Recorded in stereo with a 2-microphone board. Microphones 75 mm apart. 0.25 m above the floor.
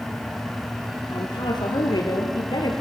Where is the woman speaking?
80° left, 7.5 m; by 2.8 s 70° left (ahead or behind), 7 m.